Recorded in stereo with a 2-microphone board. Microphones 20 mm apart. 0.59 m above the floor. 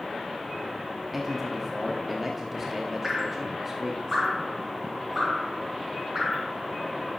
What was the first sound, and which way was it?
A man speaking, 15° right (ahead or behind).